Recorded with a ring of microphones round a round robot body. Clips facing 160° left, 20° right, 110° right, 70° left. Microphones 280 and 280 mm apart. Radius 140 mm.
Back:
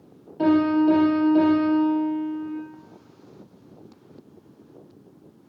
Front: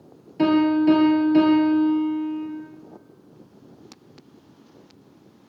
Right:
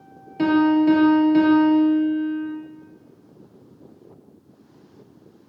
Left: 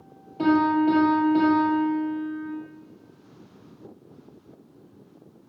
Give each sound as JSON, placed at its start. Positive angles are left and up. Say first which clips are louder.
{"t": 0.4, "sound": "a piano", "louder": "front 1 dB, right 4 dB", "azimuth_deg": -65, "distance_m": 4.0}